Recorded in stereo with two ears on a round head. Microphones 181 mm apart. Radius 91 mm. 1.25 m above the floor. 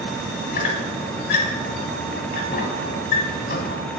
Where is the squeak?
50° left (ahead or behind), 1.6 m.